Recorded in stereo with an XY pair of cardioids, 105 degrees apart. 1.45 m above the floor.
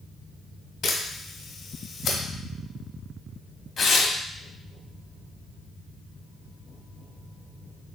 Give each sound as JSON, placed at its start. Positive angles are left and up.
{"t": 0.8, "sound": "a camera shutter", "azimuth_deg": 65, "distance_m": 1.3}
{"t": 3.8, "sound": "tearing paper", "azimuth_deg": 45, "distance_m": 0.8}